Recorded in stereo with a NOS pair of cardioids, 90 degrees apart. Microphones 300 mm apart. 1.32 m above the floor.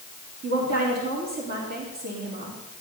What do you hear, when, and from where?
0.4 s a woman speaking: 60° right, 4 m